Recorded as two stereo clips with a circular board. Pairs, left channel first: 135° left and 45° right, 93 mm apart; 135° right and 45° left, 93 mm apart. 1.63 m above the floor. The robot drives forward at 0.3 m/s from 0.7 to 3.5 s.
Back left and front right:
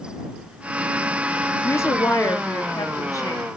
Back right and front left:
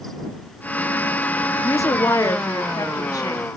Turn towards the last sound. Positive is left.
turn(degrees=180)